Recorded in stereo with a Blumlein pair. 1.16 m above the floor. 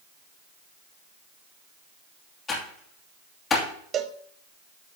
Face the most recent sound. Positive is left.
turn(degrees=-25)